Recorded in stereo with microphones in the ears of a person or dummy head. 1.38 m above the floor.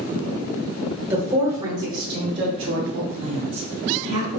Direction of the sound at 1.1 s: 20° right (ahead or behind).